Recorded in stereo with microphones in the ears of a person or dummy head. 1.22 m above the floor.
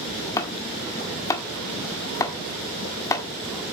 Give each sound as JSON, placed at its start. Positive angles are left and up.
{"t": 0.4, "sound": "chopping", "side_deg": 25, "distance_m": 1.3}